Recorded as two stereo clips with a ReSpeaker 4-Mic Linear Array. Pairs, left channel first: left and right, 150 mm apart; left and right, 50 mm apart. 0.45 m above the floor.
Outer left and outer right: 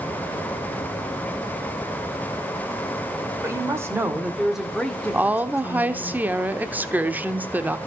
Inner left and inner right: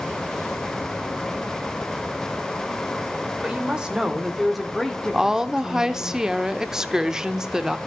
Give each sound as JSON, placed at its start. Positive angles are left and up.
{"t": 3.4, "sound": "a woman speaking", "side_deg": -20, "distance_m": 2.0}
{"t": 5.1, "sound": "a woman speaking", "side_deg": -10, "distance_m": 0.7}